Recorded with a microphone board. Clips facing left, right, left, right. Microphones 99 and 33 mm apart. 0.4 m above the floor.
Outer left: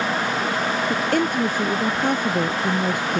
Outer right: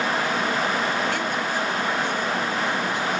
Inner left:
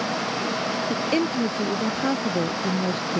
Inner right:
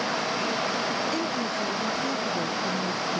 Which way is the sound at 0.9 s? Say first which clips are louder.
Outer left 4 dB, inner left 4 dB; 45° left (ahead or behind).